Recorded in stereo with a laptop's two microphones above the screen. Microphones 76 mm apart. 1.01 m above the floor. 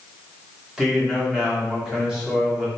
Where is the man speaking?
10° right (ahead or behind), 1.9 m.